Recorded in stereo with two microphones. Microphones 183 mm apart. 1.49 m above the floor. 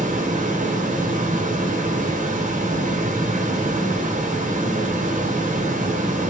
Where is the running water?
45° right (ahead or behind), 0.8 m.